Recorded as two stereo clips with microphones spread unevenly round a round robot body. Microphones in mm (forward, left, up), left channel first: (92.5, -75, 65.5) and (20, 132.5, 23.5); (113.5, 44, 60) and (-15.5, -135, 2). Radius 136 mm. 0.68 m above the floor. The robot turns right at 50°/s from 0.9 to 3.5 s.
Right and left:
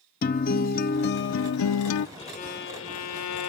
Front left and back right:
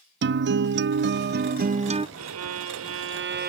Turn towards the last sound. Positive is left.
turn(degrees=-80)